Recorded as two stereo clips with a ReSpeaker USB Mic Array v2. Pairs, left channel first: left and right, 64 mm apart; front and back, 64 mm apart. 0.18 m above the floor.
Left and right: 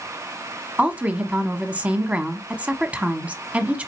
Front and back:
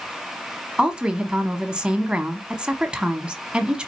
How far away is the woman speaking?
About 1.1 m.